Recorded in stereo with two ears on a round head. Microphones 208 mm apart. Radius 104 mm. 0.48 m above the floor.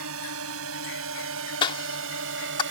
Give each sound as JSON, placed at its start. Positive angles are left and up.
{"t": 0.0, "sound": "a drone", "side_deg": -70}
{"t": 1.6, "sound": "a cough", "side_deg": 20}